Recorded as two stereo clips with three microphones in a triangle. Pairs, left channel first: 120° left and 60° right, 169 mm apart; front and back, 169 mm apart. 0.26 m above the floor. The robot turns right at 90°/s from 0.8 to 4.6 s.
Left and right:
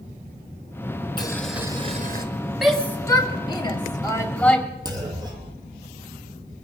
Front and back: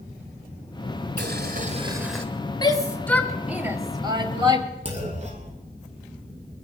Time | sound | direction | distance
1.2 | boiling | straight behind | 1.3 m
2.6 | a shout | 25° left | 1.3 m
4.8 | a clunk | 130° right | 2.5 m